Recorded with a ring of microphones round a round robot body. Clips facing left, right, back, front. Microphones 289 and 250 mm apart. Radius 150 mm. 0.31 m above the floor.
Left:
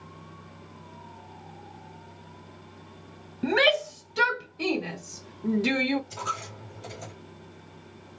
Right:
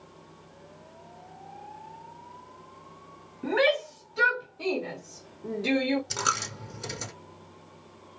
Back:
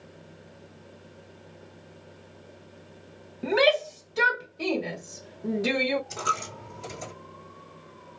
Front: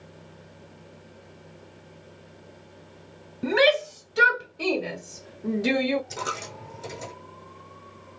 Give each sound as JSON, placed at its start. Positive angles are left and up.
{"t": 3.4, "sound": "a shout", "azimuth_deg": 70, "distance_m": 1.9}
{"t": 6.1, "sound": "a dropped coin", "azimuth_deg": -90, "distance_m": 2.5}